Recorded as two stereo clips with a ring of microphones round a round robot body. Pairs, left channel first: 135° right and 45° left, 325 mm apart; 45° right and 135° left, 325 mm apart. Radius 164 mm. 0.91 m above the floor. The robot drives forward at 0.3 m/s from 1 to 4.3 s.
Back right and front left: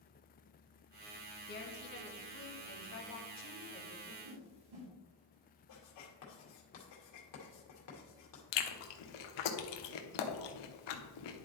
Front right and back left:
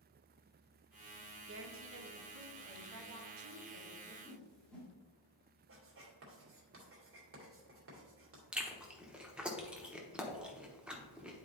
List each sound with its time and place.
1.5 s a woman speaking: 175° left, 1.0 m; by 4.1 s straight behind, 1.6 m
4.2 s a whoosh: 40° left, 2 m
5.7 s writing: 175° right, 2.5 m
8.5 s chewing: 140° right, 1.0 m